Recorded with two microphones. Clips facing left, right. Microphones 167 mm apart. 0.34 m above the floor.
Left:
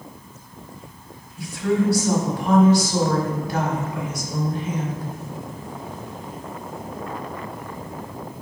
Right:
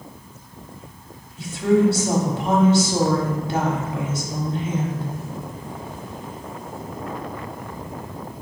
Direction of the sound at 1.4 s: 25° right (ahead or behind).